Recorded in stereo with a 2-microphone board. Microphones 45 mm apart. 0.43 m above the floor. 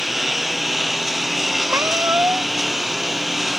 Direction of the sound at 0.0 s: 5° right (ahead or behind).